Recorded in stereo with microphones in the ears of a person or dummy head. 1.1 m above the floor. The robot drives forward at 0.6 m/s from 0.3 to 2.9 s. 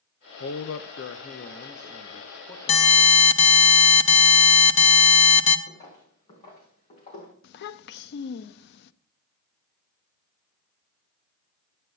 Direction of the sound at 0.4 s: 55° left (ahead or behind).